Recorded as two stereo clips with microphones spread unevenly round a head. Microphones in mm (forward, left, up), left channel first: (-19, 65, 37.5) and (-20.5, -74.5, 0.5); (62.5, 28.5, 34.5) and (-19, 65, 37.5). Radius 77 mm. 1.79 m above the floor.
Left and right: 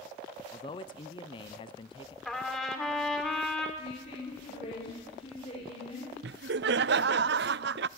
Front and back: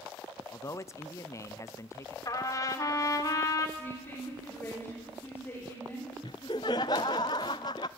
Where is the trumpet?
15° left, 2 m.